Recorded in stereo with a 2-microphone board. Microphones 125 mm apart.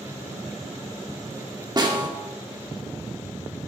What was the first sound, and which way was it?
A snare drum, 35° right (ahead or behind).